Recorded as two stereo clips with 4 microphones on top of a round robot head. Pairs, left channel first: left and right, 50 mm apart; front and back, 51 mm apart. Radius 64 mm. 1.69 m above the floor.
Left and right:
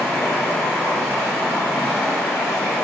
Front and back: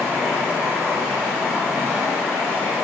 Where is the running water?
155° left, 1.3 m.